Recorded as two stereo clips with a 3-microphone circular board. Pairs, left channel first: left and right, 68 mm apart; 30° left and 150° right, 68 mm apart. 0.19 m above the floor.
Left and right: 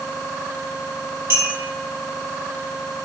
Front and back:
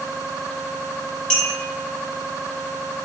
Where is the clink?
45° right, 1.8 m.